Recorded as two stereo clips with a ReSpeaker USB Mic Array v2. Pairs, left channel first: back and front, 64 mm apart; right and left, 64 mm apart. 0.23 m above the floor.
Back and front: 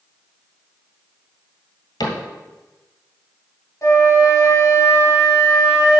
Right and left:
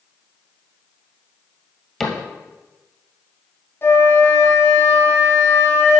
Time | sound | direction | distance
2.0 | a cupboard door | 175° right | 1.7 m
3.8 | a flute | 140° right | 3 m